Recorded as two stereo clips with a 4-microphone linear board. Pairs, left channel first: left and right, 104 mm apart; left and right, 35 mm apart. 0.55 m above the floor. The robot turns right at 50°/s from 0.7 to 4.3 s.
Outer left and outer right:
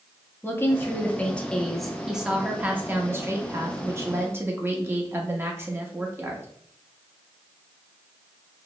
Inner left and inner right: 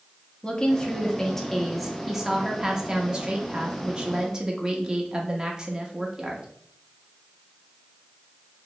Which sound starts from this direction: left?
A woman speaking, at 0.4 s.